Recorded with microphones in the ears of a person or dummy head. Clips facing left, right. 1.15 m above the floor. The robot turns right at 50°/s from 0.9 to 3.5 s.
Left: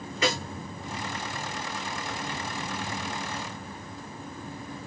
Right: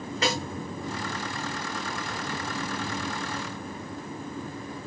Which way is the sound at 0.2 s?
35° right (ahead or behind).